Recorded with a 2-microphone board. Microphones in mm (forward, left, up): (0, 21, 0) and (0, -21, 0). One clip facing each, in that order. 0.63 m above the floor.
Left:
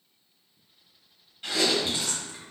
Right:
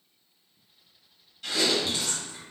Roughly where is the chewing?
Left.